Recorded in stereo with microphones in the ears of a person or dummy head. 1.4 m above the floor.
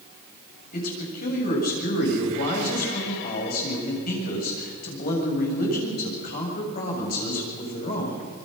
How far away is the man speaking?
About 7 m.